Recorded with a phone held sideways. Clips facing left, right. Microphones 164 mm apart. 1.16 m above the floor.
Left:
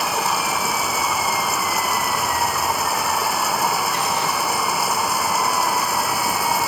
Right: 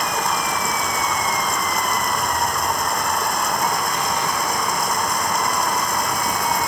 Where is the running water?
5° left (ahead or behind).